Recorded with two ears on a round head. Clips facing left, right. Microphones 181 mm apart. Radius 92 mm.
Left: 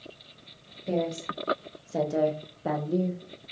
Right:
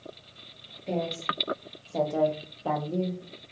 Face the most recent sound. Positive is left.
turn(degrees=10)  # may be behind; listen again after turning